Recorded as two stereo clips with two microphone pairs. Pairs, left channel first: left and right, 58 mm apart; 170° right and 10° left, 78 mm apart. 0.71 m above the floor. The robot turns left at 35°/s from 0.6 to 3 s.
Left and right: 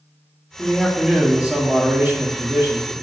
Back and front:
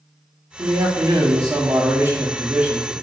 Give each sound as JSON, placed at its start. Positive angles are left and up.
{"t": 0.6, "sound": "a man speaking", "azimuth_deg": 5, "distance_m": 1.0}